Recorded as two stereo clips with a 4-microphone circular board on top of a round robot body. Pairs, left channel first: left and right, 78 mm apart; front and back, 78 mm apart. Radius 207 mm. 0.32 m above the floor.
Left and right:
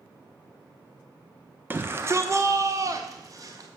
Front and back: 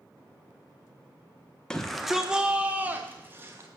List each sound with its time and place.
1.7 s a shout: 70° right, 1.1 m; by 3.7 s 125° right, 1.8 m